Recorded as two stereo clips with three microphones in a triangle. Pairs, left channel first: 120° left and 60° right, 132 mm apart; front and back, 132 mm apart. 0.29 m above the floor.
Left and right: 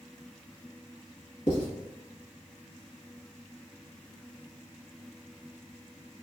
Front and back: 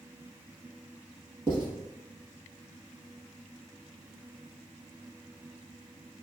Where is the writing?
130° left, 0.9 m.